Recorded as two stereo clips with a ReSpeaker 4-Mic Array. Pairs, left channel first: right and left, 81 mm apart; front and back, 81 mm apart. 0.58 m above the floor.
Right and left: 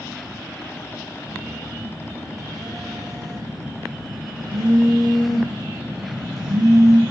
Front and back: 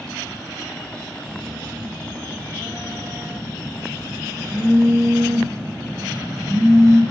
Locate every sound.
1.2 s a phone buzzing: 125° left, 7.5 m